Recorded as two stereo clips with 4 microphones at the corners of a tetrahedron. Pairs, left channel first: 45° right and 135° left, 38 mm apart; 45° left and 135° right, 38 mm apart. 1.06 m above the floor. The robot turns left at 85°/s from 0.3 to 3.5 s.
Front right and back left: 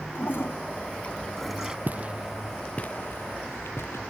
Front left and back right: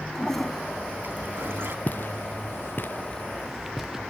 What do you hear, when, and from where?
0.1 s a toilet flushing: 30° right; by 1.8 s 155° right
1.9 s footsteps: 95° left; by 4.0 s 55° right